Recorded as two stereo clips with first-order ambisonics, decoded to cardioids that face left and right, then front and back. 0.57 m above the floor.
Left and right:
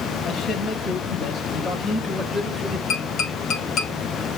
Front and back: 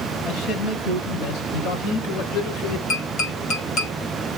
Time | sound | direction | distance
0.2 | a man speaking | 30° left | 4 m
2.9 | tapping | 40° left | 3.5 m